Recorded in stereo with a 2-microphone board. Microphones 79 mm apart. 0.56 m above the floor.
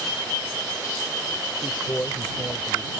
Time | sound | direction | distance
1.6 | a man speaking | 30° left (ahead or behind) | ?